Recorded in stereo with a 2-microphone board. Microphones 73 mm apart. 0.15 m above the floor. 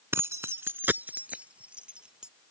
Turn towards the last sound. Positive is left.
turn(degrees=-10)  # may be behind; listen again after turning